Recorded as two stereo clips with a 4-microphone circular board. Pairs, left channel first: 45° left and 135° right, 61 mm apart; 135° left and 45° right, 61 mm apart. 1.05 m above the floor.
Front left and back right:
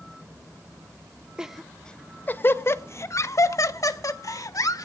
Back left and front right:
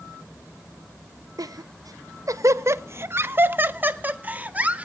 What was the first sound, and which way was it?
Laughter, 55° right.